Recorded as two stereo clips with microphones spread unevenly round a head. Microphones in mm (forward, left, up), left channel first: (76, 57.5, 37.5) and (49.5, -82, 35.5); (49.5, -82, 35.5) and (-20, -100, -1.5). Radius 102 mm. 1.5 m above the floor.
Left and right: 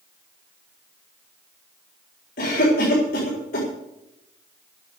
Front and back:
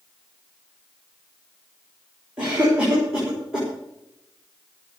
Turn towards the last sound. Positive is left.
turn(degrees=110)